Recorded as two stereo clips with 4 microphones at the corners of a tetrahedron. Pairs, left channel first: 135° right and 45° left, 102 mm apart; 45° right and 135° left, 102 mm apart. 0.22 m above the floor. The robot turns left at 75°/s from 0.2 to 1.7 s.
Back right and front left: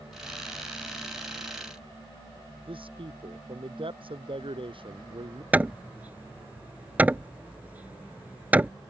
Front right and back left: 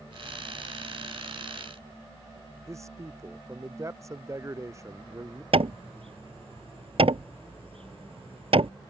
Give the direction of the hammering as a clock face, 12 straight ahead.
8 o'clock.